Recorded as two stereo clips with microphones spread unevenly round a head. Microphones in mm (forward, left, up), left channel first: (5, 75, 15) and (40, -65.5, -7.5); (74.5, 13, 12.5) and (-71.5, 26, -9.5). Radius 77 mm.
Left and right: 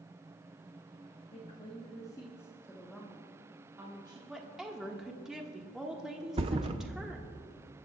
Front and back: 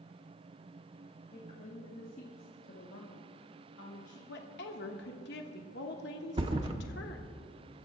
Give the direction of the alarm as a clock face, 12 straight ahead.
I don't hear an alarm.